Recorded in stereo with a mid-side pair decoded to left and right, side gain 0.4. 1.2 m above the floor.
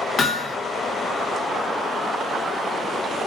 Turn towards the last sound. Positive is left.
turn(degrees=45)